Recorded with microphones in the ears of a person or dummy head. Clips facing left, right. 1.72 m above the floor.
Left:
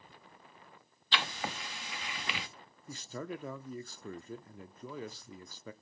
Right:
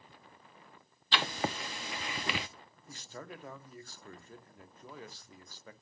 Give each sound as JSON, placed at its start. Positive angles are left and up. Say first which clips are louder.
{"t": 1.1, "sound": "writing", "louder": "right 4 dB", "side_deg": -20, "distance_m": 0.6}
{"t": 2.9, "sound": "a man speaking", "louder": "left 6 dB", "side_deg": 70, "distance_m": 0.6}